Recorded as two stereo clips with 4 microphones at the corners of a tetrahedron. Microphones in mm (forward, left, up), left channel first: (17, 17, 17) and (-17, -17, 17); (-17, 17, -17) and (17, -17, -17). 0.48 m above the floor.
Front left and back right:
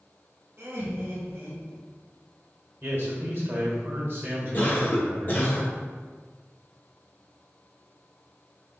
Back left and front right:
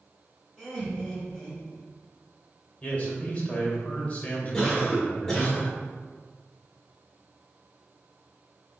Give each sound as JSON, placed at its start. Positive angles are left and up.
{"t": 0.6, "sound": "laughter", "azimuth_deg": -135, "distance_m": 1.8}
{"t": 2.8, "sound": "a man speaking", "azimuth_deg": -170, "distance_m": 1.4}
{"t": 4.5, "sound": "a cough", "azimuth_deg": 65, "distance_m": 1.2}